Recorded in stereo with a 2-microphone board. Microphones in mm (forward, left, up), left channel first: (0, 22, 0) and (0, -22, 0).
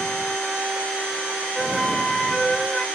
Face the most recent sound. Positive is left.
turn(degrees=5)  # may be behind; listen again after turning